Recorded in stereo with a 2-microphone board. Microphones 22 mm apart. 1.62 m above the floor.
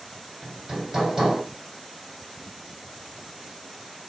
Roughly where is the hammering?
Right.